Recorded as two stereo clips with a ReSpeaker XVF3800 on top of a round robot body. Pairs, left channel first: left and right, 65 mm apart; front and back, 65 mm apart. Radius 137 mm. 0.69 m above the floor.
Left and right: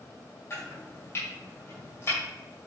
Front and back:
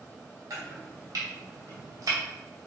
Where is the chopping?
140° left, 3 m.